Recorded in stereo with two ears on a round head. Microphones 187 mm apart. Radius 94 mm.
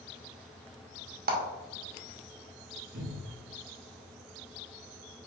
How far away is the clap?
About 1.0 m.